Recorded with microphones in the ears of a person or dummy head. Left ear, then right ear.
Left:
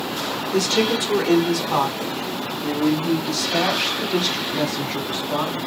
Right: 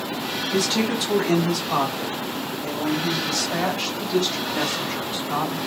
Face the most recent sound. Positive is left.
turn(degrees=-5)  # may be behind; listen again after turning